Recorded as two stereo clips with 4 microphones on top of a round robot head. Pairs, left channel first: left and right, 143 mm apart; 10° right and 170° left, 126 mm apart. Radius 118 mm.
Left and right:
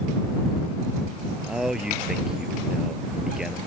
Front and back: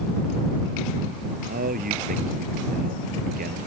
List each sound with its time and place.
1.5 s a man speaking: 175° right